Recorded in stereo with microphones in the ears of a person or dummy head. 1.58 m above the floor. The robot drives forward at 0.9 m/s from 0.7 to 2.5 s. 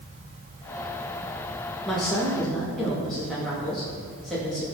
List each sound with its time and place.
1.9 s a woman speaking: centre (ahead or behind), 1.4 m